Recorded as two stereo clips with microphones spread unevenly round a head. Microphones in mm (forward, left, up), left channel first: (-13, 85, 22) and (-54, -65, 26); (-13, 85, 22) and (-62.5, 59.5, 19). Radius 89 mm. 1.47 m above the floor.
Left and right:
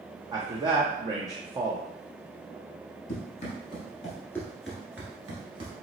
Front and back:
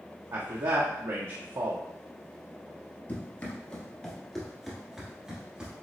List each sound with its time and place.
0.3 s a man speaking: 170° right, 0.7 m
3.1 s running footsteps: 70° left, 1.8 m; by 5.7 s 90° right, 1.6 m